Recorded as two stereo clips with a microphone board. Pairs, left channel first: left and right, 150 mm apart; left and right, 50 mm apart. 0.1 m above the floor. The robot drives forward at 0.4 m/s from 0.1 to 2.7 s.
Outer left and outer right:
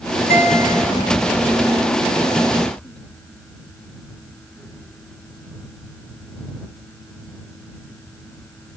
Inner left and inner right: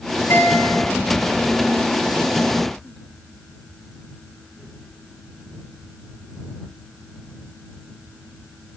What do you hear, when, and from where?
0.3 s a guitar: 80° left, 4 m